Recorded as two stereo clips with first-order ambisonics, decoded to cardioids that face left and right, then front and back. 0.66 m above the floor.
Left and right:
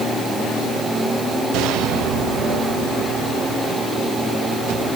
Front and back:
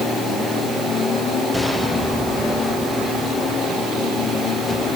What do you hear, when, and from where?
Only background noise.